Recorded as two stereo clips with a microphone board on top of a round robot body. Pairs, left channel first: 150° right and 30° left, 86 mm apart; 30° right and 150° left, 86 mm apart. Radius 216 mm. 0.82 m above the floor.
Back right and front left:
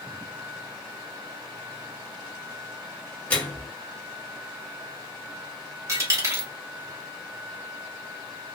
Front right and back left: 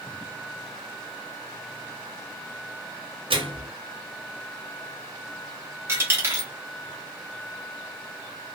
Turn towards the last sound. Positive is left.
turn(degrees=85)